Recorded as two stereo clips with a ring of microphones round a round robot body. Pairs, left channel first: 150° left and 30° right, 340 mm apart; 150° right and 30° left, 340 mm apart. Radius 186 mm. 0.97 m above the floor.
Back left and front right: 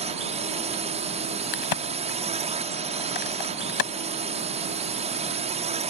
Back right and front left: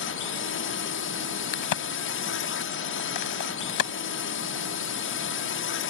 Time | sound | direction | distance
0.0 | a drone | 100° right | ?
1.5 | a crack | 175° left | ?